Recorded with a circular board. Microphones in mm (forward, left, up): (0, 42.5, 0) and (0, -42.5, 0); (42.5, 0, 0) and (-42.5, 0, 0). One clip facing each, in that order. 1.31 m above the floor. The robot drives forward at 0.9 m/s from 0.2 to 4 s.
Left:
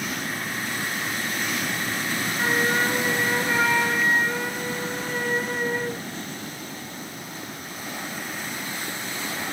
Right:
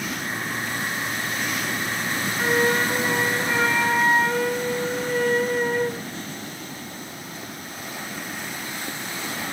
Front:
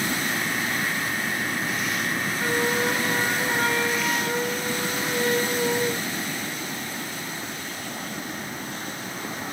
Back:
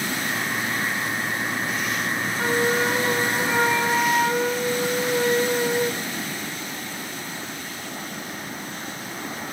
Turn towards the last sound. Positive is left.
turn(degrees=175)